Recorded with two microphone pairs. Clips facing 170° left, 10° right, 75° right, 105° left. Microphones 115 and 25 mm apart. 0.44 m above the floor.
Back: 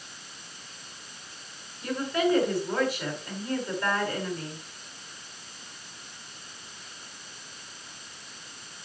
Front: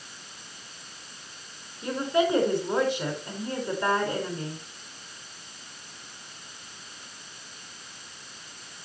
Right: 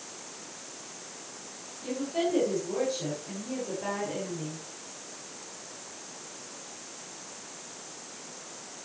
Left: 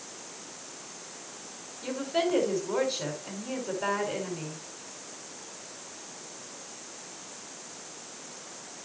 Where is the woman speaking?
55° left, 5 m.